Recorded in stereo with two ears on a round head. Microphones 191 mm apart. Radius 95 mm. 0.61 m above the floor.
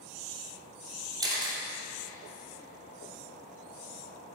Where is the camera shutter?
20° right (ahead or behind), 2.5 m.